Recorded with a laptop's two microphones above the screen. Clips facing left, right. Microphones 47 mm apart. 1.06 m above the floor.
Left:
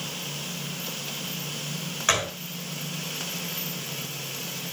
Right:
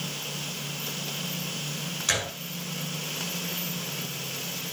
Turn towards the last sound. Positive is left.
turn(degrees=40)  # may be behind; listen again after turning